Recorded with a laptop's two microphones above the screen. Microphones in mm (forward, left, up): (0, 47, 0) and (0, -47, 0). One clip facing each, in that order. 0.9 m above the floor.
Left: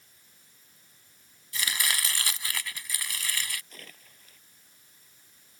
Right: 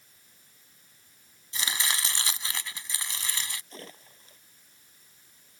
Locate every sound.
1.5 s chopping: 25° right (ahead or behind)
3.7 s a splash: 30° right (ahead or behind)